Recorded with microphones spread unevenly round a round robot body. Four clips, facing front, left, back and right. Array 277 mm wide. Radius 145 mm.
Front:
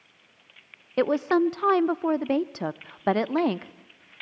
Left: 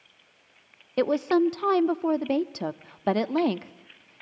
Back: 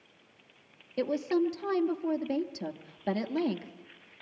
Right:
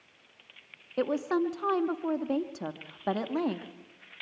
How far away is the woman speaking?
About 0.7 m.